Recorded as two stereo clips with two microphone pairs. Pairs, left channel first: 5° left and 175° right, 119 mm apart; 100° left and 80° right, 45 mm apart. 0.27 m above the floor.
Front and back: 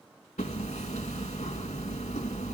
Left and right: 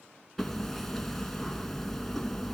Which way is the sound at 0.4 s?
15° left.